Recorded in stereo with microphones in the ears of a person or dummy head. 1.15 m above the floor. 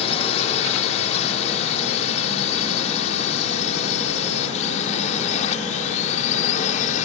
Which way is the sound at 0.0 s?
35° left (ahead or behind).